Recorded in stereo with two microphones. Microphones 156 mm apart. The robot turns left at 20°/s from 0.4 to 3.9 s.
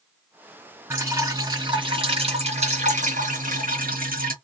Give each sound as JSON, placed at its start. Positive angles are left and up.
{"t": 0.9, "sound": "dripping", "azimuth_deg": -10, "distance_m": 2.0}